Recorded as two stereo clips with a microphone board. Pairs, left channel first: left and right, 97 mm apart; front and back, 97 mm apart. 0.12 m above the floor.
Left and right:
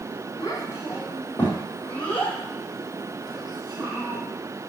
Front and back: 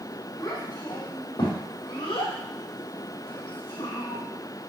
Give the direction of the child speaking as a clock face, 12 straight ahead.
11 o'clock.